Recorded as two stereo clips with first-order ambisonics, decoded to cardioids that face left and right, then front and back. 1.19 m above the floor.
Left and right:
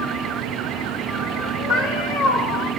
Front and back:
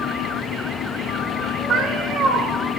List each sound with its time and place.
1.7 s a cat meowing: 115° left, 1.4 m